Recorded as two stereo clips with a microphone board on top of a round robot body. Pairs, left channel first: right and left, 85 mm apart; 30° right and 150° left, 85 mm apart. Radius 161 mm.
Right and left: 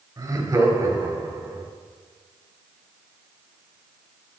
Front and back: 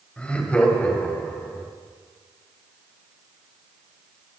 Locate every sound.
0.2 s laughter: 45° left, 3 m; by 1.6 s 40° left, 4.5 m